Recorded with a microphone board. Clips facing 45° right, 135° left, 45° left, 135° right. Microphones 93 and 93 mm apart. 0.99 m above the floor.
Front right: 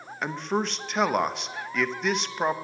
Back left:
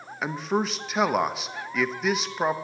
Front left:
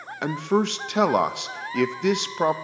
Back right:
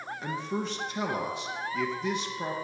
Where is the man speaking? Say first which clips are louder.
Back left 1 dB, front left 11 dB; 45° left, 0.6 m.